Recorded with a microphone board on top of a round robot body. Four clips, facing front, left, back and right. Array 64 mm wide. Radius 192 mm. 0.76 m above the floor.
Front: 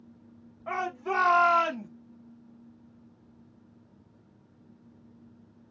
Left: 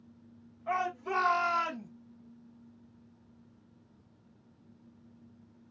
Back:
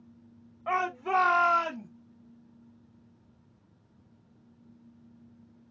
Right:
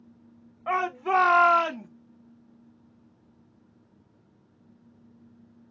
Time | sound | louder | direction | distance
0.7 | a shout | right 7 dB, back 2 dB | 115° right | 1.2 m